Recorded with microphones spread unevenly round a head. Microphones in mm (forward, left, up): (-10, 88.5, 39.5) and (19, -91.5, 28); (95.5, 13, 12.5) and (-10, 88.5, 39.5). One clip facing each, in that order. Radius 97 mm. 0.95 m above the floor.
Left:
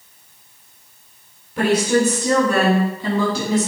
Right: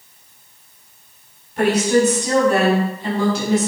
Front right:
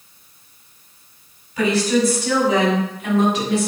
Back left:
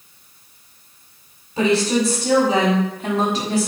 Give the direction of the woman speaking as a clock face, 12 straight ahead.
9 o'clock.